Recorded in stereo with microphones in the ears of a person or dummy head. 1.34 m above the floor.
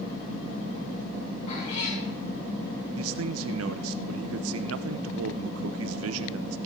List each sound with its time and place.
1.5 s a cat meowing: 40° left (ahead or behind), 6.5 m
3.0 s a man speaking: 85° right, 0.5 m